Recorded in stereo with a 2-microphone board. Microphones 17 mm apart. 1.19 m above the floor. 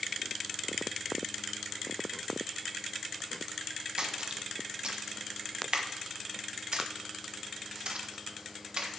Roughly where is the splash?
Right.